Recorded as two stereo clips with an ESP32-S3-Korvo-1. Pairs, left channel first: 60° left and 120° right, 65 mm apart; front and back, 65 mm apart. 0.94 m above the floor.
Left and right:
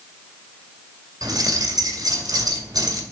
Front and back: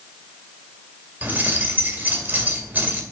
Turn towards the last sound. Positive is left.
turn(degrees=-115)